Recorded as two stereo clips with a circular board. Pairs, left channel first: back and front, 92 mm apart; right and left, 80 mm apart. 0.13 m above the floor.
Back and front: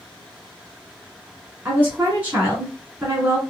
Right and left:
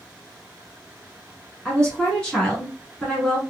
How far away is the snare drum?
I don't hear a snare drum.